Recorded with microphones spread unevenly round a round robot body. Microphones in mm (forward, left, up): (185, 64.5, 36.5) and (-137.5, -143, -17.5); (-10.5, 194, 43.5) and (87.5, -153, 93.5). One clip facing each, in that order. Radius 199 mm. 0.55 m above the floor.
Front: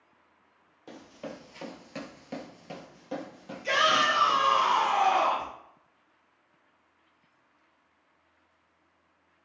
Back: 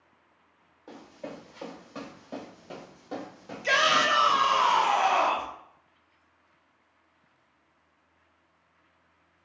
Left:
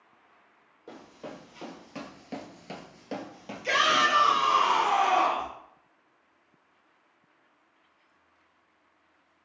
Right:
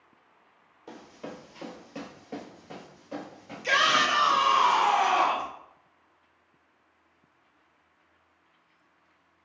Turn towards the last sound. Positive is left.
turn(degrees=-160)